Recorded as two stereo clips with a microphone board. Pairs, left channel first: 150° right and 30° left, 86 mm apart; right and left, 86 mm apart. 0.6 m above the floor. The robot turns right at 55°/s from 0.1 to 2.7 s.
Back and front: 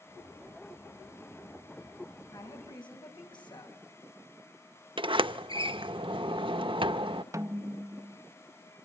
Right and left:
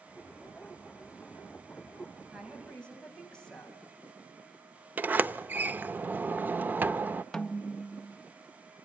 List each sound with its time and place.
2.3 s a woman speaking: 170° left, 4 m; by 3.8 s 170° right, 4 m
5.0 s a sliding door: 20° left, 0.6 m
7.3 s a snare drum: 10° right, 0.6 m